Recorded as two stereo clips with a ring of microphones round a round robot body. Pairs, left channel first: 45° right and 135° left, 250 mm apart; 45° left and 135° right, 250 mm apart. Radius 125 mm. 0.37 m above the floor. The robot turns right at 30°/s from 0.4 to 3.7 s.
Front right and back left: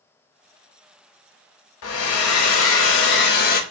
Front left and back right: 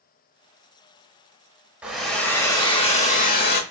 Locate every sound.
1.8 s a hair dryer: 50° right, 0.7 m; by 3.6 s 5° left, 0.7 m